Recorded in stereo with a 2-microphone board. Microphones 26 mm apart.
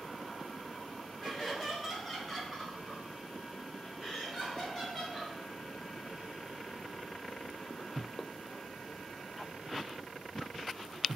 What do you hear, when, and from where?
1.2 s laughter: 5° left (ahead or behind), 1.7 m